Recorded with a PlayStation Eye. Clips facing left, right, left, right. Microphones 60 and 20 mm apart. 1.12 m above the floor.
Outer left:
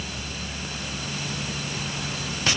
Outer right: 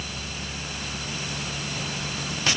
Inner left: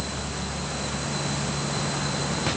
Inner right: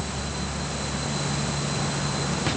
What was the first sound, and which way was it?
Only background noise.